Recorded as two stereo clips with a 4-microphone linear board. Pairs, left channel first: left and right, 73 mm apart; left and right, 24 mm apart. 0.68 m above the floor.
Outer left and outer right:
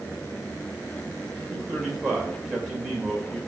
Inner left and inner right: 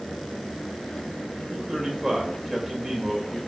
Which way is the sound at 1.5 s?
Centre (ahead or behind).